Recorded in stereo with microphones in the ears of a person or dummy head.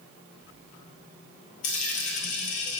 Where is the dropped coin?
45° left (ahead or behind), 1.5 m.